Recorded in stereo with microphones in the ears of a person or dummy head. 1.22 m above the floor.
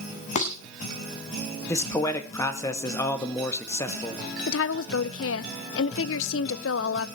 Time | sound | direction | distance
0.3 | dishes clattering | 50° left (ahead or behind) | 3 m
1.7 | a man speaking | 25° left (ahead or behind) | 1.9 m
4.5 | a woman speaking | 70° left (ahead or behind) | 0.7 m